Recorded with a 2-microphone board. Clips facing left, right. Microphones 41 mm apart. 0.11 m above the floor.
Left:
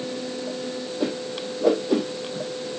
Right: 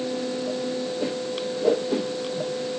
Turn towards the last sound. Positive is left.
turn(degrees=70)  # may be behind; listen again after turning